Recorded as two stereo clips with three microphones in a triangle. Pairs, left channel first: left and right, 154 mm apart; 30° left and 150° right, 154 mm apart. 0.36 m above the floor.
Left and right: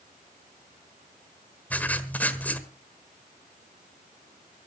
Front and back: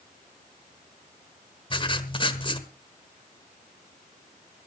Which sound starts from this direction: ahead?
Writing, at 1.7 s.